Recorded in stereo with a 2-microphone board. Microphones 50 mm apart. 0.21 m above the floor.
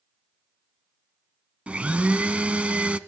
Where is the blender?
25° right (ahead or behind), 0.6 m.